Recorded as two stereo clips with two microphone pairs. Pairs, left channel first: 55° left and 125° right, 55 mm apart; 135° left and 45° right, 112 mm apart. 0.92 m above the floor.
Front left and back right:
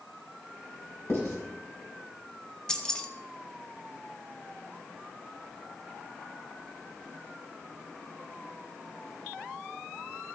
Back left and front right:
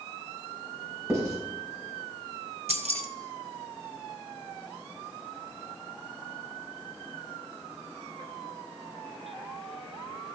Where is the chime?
No chime in this recording.